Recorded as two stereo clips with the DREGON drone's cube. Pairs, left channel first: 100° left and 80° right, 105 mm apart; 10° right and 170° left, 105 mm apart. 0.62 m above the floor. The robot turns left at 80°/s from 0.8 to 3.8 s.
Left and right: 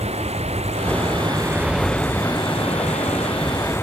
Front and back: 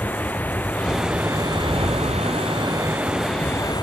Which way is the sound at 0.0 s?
85° right.